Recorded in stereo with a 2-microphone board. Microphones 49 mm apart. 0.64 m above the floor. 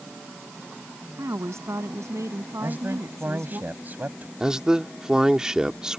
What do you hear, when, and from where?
1.2 s a woman speaking: 80° right
2.6 s a man speaking: 40° right (ahead or behind)
4.4 s a man speaking: 15° right (ahead or behind)